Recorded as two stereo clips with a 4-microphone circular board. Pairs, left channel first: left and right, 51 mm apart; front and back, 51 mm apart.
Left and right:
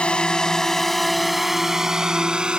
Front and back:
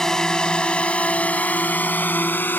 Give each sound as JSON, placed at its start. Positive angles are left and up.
{"t": 0.0, "sound": "a drone", "azimuth_deg": 60}